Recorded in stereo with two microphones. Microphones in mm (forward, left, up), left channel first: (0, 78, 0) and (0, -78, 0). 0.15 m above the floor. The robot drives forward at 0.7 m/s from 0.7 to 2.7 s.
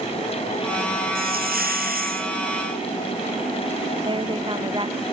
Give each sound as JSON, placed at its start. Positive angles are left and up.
{"t": 1.1, "sound": "a hiss", "side_deg": -75}
{"t": 4.0, "sound": "a woman speaking", "side_deg": -35}